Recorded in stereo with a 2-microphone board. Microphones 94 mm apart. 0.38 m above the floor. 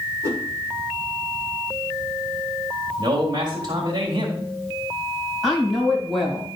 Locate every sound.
0.2 s a whoosh: 30° right (ahead or behind), 2.5 m
3.0 s a man speaking: 50° right (ahead or behind), 1.8 m
5.4 s a woman speaking: centre (ahead or behind), 3 m